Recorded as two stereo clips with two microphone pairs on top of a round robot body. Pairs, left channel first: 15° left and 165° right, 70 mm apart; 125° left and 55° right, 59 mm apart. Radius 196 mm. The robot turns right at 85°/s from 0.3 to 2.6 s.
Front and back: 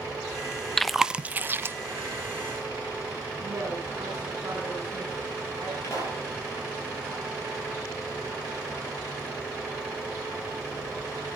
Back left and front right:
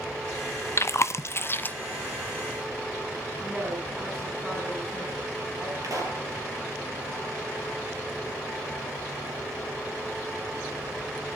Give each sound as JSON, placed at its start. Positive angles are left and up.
{"t": 0.8, "sound": "chewing", "azimuth_deg": 105, "distance_m": 1.0}
{"t": 3.4, "sound": "a woman speaking", "azimuth_deg": -115, "distance_m": 8.0}
{"t": 5.8, "sound": "a pop", "azimuth_deg": -40, "distance_m": 6.0}